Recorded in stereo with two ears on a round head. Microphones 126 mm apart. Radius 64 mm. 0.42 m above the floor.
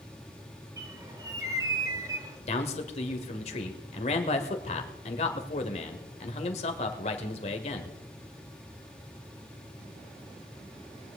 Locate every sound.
0.8 s a bird: 25° right (ahead or behind), 2.5 m
2.5 s a man speaking: 45° left (ahead or behind), 1.6 m